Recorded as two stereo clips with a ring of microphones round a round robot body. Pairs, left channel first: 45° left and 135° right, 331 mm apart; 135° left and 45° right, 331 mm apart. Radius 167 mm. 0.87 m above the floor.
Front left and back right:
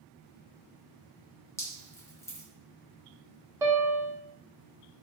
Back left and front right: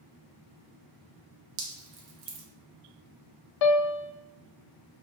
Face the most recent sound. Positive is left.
turn(degrees=145)